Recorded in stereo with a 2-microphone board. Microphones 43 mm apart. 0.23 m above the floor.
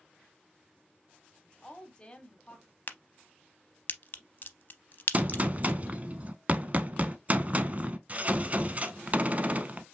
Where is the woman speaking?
20° left (ahead or behind), 1.1 m.